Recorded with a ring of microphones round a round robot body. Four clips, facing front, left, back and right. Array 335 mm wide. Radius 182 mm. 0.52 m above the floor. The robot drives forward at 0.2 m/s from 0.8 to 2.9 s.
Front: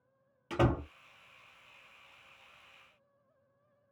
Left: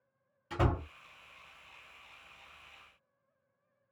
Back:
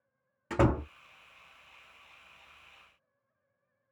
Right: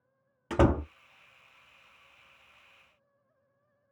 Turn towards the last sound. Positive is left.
turn(degrees=-145)